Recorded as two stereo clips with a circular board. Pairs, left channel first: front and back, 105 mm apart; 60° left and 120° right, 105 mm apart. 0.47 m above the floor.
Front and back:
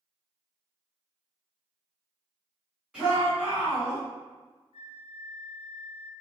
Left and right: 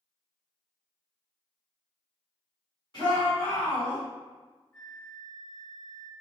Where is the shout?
90° left, 2 m.